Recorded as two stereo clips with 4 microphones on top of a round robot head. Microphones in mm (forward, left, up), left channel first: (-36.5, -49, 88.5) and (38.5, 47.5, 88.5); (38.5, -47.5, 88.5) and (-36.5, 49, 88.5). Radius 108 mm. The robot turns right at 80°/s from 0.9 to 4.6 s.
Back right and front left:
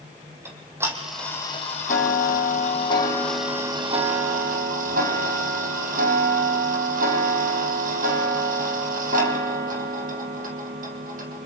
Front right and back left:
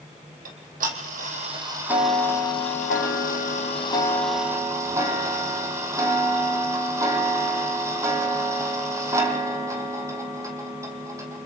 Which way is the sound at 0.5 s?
125° left.